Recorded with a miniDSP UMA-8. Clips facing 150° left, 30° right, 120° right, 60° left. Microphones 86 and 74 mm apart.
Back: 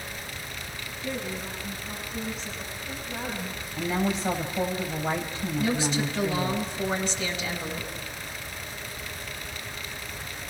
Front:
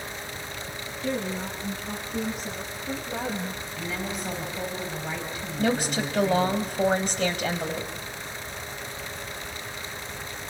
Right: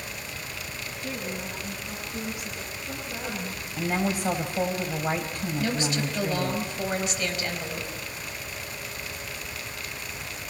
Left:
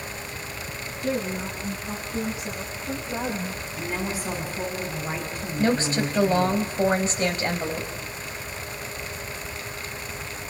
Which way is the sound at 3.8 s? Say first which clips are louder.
Back 7 dB, right 4 dB; 150° right.